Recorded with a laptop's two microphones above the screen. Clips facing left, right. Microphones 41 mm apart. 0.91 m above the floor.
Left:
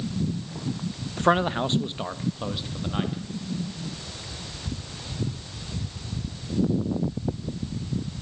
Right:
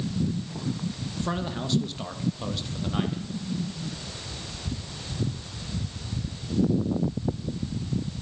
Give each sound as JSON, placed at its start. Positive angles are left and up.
{"t": 1.2, "sound": "a man speaking", "side_deg": 50, "distance_m": 0.7}